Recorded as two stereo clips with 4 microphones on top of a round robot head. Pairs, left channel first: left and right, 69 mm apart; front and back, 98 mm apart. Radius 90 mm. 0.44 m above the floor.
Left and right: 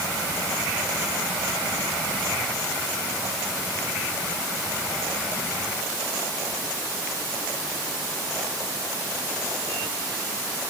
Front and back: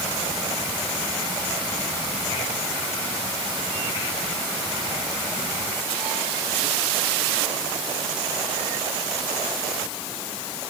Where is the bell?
I don't hear a bell.